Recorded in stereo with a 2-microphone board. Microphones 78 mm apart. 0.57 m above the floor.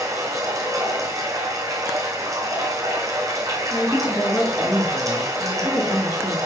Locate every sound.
0.0 s running water: 45° right (ahead or behind), 2.5 m
3.7 s a woman speaking: 25° left (ahead or behind), 3.5 m